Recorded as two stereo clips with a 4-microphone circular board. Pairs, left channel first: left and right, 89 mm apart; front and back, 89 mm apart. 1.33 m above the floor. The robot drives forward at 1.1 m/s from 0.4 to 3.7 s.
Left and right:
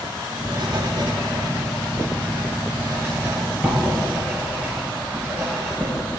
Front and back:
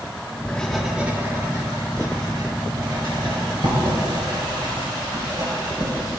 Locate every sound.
0.5 s writing: 70° right, 1.1 m; by 5.9 s 165° right, 3.5 m